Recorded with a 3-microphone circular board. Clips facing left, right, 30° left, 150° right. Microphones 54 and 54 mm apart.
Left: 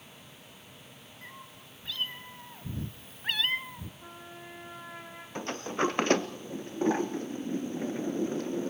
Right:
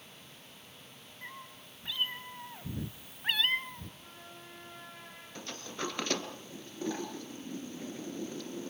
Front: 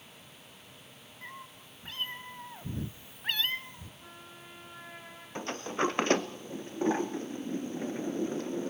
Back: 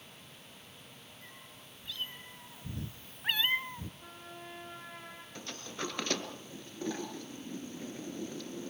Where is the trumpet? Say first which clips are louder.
Left 5 dB, back 2 dB; 130° left, 6.5 m.